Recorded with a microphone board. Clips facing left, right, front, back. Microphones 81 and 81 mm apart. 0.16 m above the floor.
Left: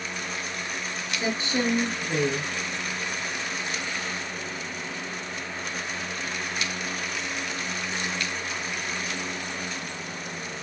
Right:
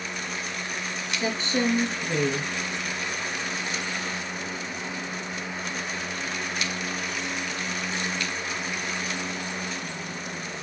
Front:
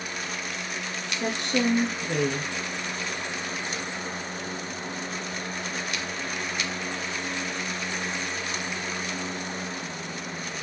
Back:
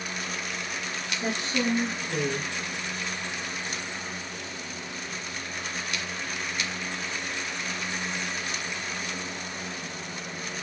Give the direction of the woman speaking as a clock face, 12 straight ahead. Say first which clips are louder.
Right 1 dB, front 3 dB; 12 o'clock.